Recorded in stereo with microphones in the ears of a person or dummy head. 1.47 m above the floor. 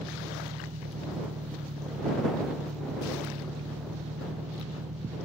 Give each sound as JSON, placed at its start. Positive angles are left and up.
{"t": 0.0, "sound": "an engine running", "side_deg": -40}